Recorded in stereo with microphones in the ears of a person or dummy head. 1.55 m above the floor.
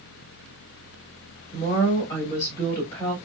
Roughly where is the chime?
No chime in this recording.